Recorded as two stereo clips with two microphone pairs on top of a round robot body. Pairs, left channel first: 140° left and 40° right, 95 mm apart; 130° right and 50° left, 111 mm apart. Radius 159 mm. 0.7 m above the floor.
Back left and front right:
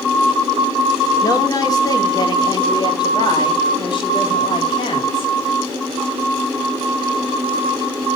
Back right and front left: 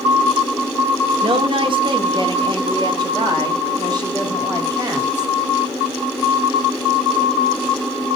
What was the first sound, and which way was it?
A woman speaking, 90° left.